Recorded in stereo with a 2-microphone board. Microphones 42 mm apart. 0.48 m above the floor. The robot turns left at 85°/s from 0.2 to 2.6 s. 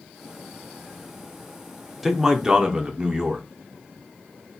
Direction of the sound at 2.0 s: 5° right (ahead or behind).